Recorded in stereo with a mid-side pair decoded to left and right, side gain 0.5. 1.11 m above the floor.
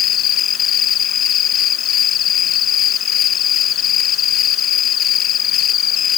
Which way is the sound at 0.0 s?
60° left.